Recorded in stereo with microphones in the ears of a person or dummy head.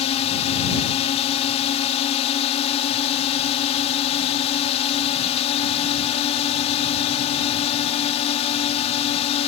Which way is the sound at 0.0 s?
35° left (ahead or behind).